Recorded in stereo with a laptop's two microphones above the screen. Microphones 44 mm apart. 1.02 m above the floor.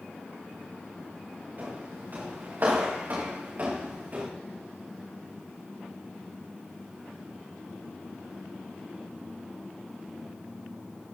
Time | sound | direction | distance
1.6 | footsteps | 55° right (ahead or behind) | 8 m